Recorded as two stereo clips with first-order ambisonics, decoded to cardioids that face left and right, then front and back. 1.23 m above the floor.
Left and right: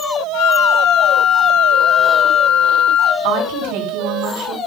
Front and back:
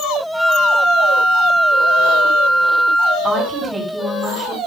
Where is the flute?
95° left, 1.9 m.